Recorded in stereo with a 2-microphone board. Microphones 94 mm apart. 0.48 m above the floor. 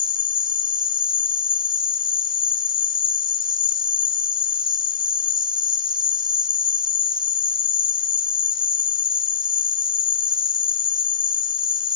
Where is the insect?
60° right (ahead or behind).